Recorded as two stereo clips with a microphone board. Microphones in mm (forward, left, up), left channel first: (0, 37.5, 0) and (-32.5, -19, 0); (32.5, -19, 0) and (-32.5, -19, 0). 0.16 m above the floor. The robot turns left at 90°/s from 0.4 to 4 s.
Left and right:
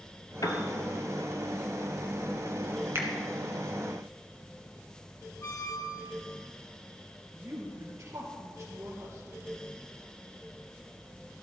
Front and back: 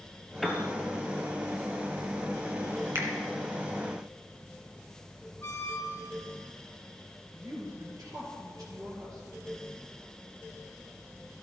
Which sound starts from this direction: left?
A piano, at 0.4 s.